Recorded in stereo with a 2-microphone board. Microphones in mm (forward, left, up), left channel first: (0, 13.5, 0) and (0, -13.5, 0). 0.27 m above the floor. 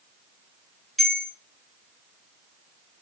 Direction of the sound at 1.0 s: 15° left (ahead or behind).